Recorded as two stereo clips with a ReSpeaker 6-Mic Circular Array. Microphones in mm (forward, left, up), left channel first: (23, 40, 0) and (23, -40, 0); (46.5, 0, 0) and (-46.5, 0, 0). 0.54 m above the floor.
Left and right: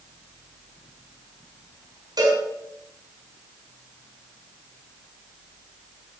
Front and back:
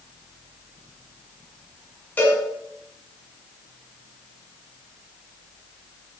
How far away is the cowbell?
About 6 m.